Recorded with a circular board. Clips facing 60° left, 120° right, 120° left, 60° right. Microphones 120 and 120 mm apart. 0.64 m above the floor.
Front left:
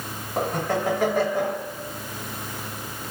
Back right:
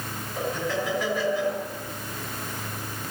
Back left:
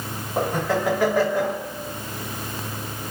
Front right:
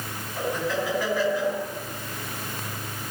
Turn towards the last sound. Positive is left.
turn(degrees=100)